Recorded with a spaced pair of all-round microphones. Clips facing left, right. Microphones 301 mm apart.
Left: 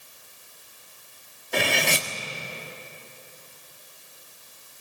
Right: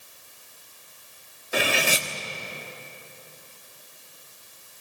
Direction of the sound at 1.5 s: 5° right (ahead or behind).